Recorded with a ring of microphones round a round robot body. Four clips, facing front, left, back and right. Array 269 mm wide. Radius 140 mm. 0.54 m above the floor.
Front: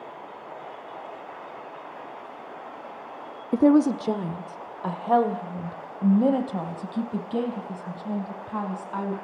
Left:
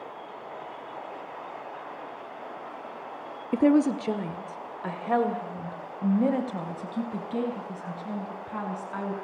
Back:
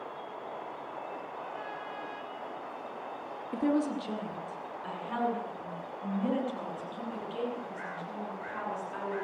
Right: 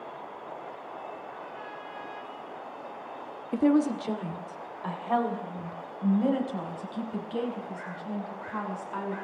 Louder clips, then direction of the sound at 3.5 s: Left 2 dB, front 11 dB; 25° left.